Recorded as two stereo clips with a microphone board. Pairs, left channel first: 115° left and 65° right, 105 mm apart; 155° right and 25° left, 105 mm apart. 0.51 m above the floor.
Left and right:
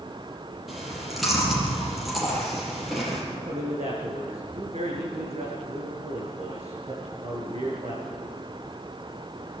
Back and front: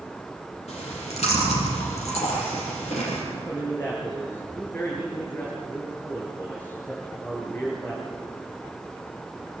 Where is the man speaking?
85° right, 8.5 m.